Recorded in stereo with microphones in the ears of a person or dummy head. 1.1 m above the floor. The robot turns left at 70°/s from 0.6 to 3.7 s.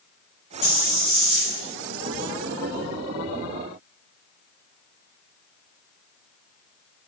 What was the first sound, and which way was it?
A hiss, 20° left.